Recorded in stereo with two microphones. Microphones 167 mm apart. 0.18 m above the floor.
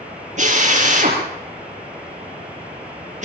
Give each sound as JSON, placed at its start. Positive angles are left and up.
{"t": 0.4, "sound": "a drill", "side_deg": -45, "distance_m": 5.0}